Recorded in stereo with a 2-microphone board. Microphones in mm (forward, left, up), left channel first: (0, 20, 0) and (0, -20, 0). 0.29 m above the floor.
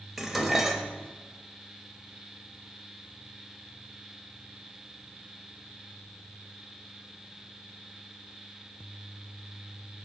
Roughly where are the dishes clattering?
Centre.